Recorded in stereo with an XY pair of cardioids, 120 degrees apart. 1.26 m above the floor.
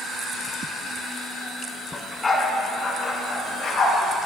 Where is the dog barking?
15° left, 3 m; by 4.0 s 45° left, 4.5 m.